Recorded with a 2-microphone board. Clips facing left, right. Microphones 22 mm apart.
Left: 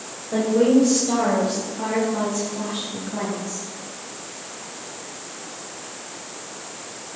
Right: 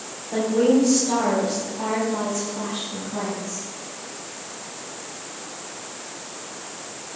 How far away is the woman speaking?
About 3 m.